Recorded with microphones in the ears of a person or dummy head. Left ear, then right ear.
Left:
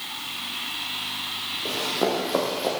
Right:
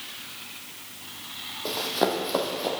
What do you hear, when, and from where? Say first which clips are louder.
1.6 s running footsteps: even; 35° right (ahead or behind), 2.5 m; by 2.7 s centre (ahead or behind), 2 m